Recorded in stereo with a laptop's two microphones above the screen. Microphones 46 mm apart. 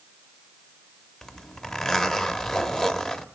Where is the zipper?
15° left (ahead or behind), 0.9 m.